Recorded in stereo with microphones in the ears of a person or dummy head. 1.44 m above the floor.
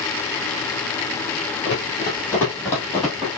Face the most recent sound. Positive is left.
turn(degrees=5)  # may be behind; listen again after turning